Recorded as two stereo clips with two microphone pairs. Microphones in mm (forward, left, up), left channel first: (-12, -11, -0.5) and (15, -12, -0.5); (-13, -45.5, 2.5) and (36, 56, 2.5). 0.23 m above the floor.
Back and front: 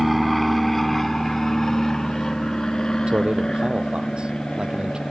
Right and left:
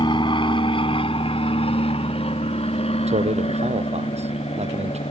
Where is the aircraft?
90° right; by 5.1 s 130° right.